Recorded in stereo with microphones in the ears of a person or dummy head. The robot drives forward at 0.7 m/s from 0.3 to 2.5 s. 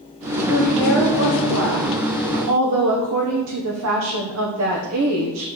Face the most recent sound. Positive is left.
turn(degrees=-80)